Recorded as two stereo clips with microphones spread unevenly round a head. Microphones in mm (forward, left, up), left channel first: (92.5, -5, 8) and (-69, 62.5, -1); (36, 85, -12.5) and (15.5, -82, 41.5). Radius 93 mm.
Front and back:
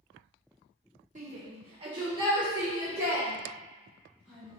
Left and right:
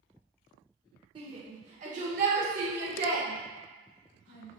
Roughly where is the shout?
Behind right.